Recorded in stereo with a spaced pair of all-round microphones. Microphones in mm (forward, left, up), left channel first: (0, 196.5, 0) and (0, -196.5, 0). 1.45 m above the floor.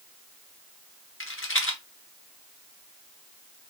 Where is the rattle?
30° left (ahead or behind), 1.1 m.